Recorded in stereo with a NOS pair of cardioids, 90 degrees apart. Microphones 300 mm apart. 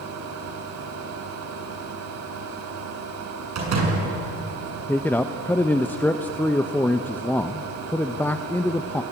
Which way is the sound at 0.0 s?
60° right.